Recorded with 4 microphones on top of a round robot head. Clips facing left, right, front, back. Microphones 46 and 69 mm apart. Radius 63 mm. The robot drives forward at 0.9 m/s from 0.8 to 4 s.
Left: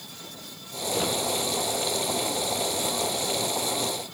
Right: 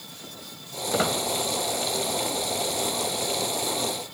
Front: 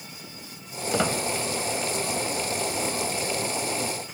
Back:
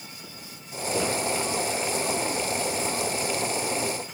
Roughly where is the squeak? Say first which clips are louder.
Right 3 dB, front 2 dB; ahead right.